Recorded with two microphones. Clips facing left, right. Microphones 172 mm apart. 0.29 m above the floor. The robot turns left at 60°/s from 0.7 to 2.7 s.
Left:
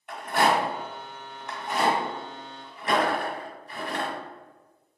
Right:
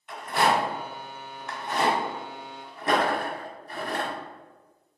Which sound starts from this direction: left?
A rattle, at 0.1 s.